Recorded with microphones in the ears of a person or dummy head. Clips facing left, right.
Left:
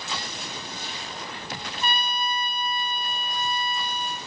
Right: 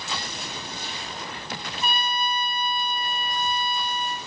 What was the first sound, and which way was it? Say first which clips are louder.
A trumpet: right 1 dB; 5° right (ahead or behind).